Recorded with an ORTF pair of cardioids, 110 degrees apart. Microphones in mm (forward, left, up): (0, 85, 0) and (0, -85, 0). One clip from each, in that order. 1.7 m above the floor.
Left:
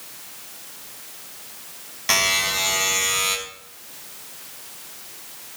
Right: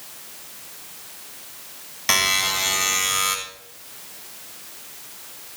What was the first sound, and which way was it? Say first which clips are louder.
A buzzer: even; 20° right.